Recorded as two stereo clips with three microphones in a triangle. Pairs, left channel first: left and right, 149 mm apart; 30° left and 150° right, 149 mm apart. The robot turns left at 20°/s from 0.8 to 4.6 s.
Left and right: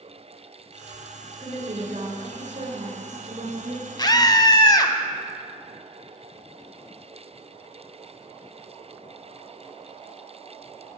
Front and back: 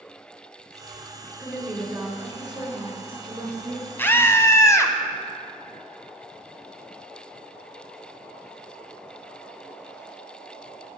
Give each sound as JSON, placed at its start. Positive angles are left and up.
{"t": 1.4, "sound": "a woman speaking", "azimuth_deg": -60, "distance_m": 2.0}
{"t": 4.0, "sound": "a scream", "azimuth_deg": 85, "distance_m": 1.1}